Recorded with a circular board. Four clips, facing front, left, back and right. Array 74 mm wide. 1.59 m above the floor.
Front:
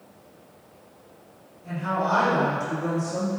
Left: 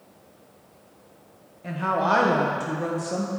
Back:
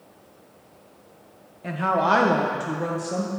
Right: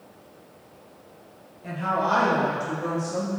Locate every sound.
1.6 s a woman speaking: 165° left, 1.3 m; by 3.3 s 140° left, 2 m